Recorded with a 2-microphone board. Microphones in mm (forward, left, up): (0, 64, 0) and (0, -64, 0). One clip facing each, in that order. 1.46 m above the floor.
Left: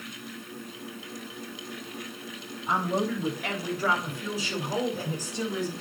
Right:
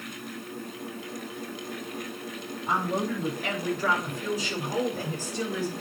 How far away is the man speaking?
About 5.5 m.